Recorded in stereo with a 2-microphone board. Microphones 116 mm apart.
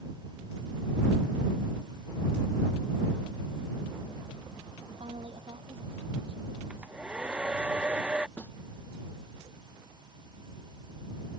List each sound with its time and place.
5.0 s a woman speaking: 60° right (ahead or behind)
6.7 s a hair dryer: 10° right (ahead or behind)
8.4 s a snare drum: 10° left (ahead or behind)